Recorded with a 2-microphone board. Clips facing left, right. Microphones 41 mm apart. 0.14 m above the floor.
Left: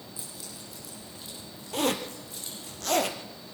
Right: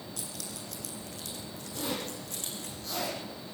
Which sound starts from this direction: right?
Keys jangling, at 0.2 s.